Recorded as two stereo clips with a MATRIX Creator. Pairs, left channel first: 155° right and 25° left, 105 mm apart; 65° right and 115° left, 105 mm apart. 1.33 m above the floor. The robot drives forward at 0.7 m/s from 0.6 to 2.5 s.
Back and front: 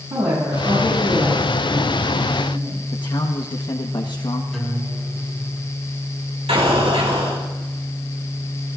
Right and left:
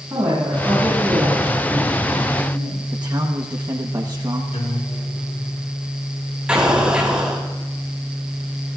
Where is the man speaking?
160° left, 1.1 m.